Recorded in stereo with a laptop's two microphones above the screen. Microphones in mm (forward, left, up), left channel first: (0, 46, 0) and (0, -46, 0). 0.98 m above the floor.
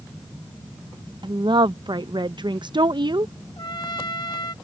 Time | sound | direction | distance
1.2 | a woman speaking | 55° right (ahead or behind) | ?
3.6 | a trumpet | 50° left (ahead or behind) | ?